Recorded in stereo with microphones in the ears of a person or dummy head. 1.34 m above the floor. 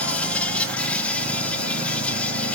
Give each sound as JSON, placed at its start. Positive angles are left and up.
{"t": 0.0, "sound": "an insect", "side_deg": 10, "distance_m": 1.0}